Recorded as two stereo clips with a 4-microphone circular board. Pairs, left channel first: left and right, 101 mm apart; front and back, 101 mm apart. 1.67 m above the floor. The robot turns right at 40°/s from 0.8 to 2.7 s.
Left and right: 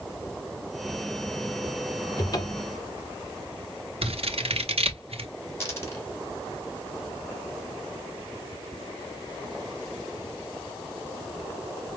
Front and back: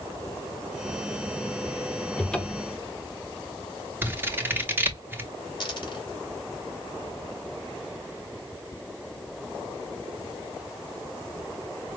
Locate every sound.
2.2 s a cupboard door: 70° left, 1.0 m; by 2.8 s 90° left, 1.0 m
4.0 s scissors: 110° right, 1.0 m
5.6 s a dropped coin: 30° left, 2 m